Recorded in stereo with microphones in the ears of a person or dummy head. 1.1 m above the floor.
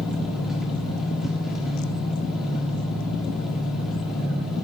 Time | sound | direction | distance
0.0 | an engine running | centre (ahead or behind) | 1.5 m